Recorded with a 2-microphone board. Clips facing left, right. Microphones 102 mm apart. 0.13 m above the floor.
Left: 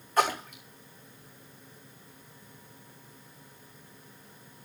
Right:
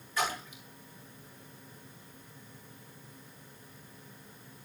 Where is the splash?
45° left (ahead or behind), 3 m.